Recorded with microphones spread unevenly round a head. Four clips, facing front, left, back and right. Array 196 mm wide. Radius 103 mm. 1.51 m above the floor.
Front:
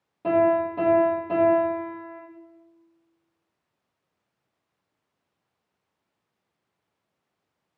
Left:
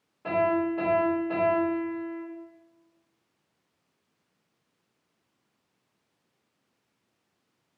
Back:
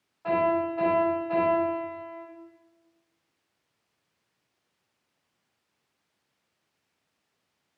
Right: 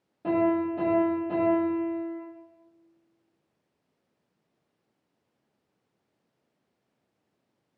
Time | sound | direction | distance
0.2 | a piano | 30° right | 2.0 m